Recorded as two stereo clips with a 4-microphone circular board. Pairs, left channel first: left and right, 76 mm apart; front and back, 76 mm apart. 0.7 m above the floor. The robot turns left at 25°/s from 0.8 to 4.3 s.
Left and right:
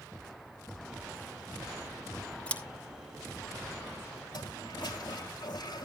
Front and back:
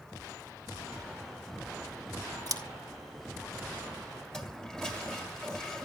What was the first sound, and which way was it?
Scissors, 160° left.